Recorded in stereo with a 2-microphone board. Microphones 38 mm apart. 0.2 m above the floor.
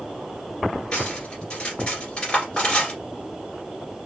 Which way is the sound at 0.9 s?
30° left (ahead or behind).